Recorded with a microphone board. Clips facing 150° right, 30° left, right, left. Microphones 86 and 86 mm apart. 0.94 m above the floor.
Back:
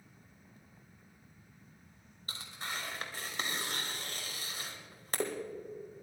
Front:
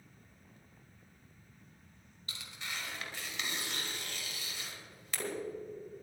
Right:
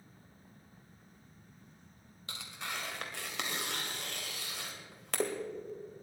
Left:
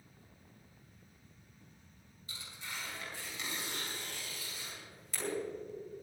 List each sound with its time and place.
2.3 s tearing paper: 100° right, 2 m